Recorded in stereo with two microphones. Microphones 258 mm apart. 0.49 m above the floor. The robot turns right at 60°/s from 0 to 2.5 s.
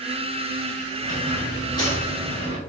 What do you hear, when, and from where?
1.0 s a squeak: 120° left, 1.1 m; by 2.6 s 155° right, 1.1 m